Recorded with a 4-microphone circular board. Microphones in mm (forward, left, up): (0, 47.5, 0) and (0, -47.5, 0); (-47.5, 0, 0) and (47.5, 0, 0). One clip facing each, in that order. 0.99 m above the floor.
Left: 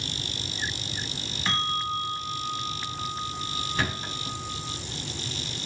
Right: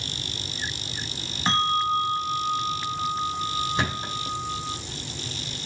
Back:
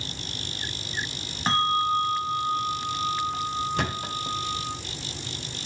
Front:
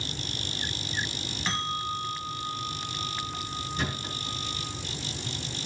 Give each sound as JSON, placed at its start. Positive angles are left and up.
{"t": 1.5, "sound": "a bell", "azimuth_deg": -140, "distance_m": 1.3}
{"t": 3.8, "sound": "a thud", "azimuth_deg": -160, "distance_m": 2.0}